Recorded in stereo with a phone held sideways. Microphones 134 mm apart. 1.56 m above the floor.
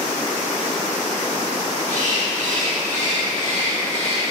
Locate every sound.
1.9 s a bird: 65° right (ahead or behind), 1.6 m